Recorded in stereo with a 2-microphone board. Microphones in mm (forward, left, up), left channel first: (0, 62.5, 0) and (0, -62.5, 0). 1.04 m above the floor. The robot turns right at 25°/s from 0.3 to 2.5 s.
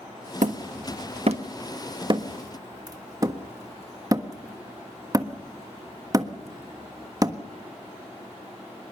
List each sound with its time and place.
0.4 s hammering: 75° right (ahead or behind), 1.4 m; by 7.4 s 30° right (ahead or behind), 1.4 m